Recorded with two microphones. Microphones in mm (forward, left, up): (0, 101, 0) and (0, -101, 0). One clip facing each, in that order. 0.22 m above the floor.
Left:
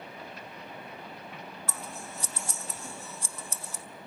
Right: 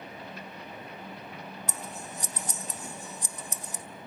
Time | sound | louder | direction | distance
1.7 | scissors | right 1 dB | 15° right (ahead or behind) | 0.6 m